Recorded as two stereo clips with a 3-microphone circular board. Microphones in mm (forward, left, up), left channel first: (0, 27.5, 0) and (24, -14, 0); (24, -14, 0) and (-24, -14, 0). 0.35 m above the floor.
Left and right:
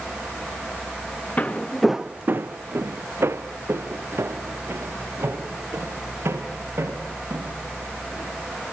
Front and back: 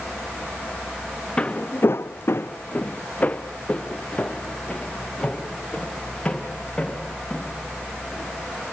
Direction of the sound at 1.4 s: 65° left.